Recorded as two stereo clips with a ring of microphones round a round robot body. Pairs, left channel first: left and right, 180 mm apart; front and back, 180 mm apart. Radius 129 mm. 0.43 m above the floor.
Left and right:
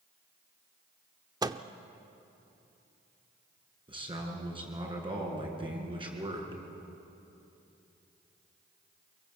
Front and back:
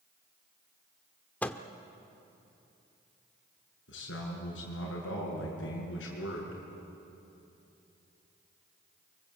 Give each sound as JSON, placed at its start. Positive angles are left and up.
{"t": 1.4, "sound": "a microwave", "azimuth_deg": -70, "distance_m": 0.7}
{"t": 3.9, "sound": "a man speaking", "azimuth_deg": -30, "distance_m": 6.0}